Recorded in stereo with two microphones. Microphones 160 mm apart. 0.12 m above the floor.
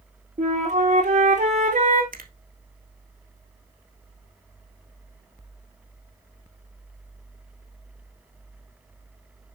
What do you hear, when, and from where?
0.4 s a flute: 50° right (ahead or behind), 3.5 m
2.1 s a finger snap: 65° right (ahead or behind), 1.8 m